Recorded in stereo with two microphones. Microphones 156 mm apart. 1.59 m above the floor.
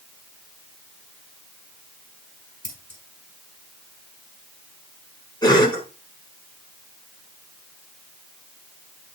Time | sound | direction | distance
2.6 | scissors | 60° right (ahead or behind) | 5 m
5.4 | a cough | 30° left (ahead or behind) | 4.5 m